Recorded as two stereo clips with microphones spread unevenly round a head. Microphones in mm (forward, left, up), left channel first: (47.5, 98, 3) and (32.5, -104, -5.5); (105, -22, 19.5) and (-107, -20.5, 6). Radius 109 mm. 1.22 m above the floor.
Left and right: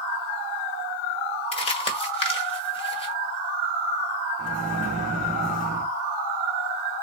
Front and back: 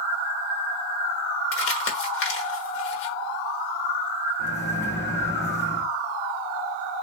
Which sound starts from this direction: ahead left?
Crumpling, at 1.5 s.